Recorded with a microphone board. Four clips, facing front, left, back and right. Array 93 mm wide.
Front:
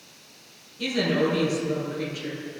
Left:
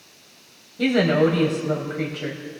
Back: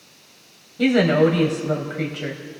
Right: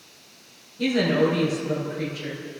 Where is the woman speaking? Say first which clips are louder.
Left 3 dB, back 8 dB; 150° left, 3 m.